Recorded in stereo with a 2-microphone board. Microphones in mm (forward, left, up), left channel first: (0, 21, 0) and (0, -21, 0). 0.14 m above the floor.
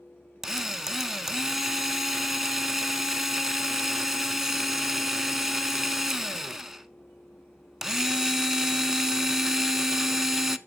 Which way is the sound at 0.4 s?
10° right (ahead or behind).